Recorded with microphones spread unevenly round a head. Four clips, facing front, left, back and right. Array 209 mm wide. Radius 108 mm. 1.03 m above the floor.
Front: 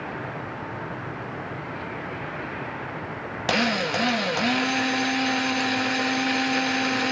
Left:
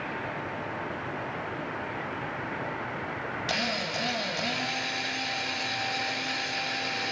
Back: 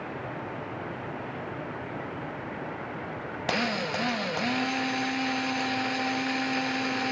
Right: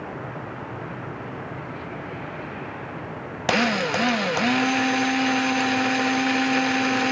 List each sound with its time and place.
3.5 s a drill: 75° right, 1.9 m